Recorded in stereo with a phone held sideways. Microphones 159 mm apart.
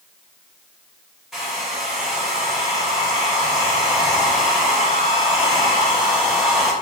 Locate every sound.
1.3 s a hair dryer: centre (ahead or behind), 0.9 m